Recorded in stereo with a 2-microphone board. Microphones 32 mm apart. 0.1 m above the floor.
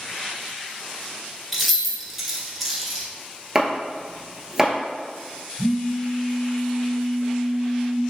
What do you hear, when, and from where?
1.5 s keys jangling: 5° right (ahead or behind), 1.0 m
3.5 s chopping: 10° right (ahead or behind), 0.9 m
5.6 s a phone buzzing: 5° left (ahead or behind), 0.8 m